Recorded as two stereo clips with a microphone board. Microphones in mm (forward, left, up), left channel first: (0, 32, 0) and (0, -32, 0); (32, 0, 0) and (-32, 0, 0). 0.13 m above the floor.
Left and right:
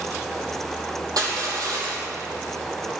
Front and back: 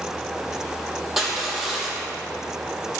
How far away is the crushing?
About 4.5 m.